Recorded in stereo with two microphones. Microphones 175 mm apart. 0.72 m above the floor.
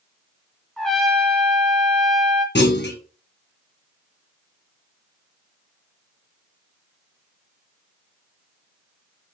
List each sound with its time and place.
0.8 s a trumpet: 5° left (ahead or behind), 0.6 m
2.5 s a clunk: 80° left, 0.8 m